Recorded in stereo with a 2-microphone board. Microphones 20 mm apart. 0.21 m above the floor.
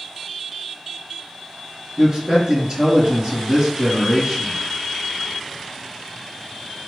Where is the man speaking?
25° right (ahead or behind), 1.7 m.